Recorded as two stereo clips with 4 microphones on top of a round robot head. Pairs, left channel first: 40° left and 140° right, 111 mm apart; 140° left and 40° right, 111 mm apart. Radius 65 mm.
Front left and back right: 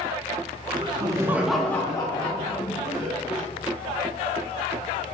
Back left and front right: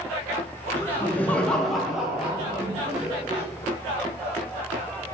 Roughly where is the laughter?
Behind right.